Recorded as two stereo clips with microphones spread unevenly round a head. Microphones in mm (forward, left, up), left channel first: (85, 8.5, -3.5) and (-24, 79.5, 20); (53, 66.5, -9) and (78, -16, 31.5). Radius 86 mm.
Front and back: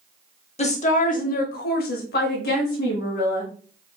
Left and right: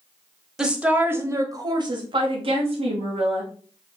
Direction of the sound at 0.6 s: 10° left.